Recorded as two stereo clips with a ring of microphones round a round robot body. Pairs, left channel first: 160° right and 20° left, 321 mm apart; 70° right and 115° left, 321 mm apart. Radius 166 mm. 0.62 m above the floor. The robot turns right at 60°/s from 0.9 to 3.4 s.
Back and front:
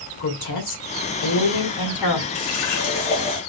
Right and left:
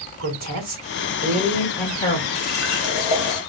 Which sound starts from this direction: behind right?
A running tap, at 2.4 s.